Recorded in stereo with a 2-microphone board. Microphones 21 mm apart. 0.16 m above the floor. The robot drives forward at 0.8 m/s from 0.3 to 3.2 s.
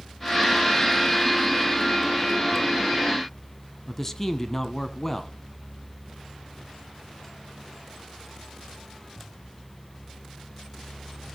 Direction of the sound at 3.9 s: 15° left (ahead or behind).